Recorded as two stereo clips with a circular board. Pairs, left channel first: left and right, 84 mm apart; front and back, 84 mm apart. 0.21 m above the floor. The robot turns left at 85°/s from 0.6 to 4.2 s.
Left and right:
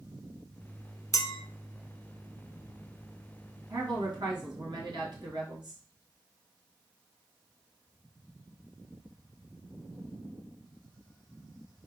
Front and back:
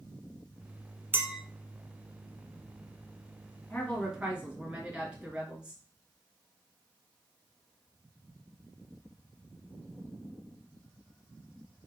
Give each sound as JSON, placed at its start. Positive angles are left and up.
{"t": 1.1, "sound": "a clink", "azimuth_deg": 125, "distance_m": 1.0}
{"t": 3.7, "sound": "a woman speaking", "azimuth_deg": -60, "distance_m": 3.5}